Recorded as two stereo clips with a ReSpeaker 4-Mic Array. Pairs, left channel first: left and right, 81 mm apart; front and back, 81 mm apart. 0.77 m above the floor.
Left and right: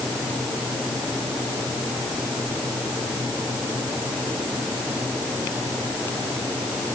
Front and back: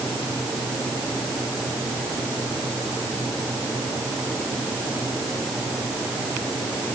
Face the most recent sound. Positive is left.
No sound to turn to.